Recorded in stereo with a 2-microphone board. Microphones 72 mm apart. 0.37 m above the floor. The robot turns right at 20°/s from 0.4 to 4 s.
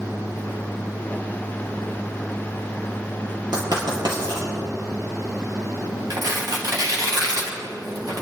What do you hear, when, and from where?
3.5 s writing: 80° right, 4.5 m; by 4.5 s 85° right, 4.5 m
6.1 s tearing paper: 65° right (ahead or behind), 3 m